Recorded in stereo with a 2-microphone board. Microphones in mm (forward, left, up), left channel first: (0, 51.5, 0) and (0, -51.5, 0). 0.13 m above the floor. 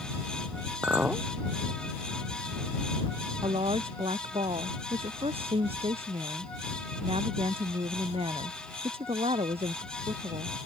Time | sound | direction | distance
0.8 | a clink | 15° right (ahead or behind) | ?
3.4 | a woman speaking | 70° right (ahead or behind) | ?